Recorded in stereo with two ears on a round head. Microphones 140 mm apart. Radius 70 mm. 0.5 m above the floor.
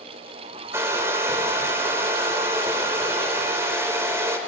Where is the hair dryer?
15° right (ahead or behind), 2.0 m.